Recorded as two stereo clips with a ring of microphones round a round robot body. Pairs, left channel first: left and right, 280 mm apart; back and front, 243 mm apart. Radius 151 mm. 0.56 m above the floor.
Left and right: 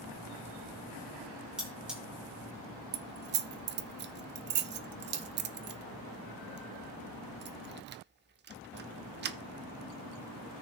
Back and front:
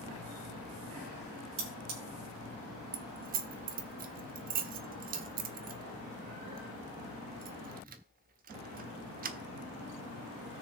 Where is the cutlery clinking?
5° right, 3 m.